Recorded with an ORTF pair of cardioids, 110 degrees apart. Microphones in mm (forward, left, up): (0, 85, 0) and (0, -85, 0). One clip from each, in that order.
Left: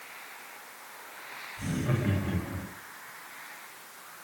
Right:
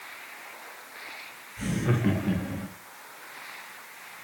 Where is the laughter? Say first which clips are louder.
Right 4 dB; 65° right, 2.5 m; by 2.7 s 80° right, 2 m.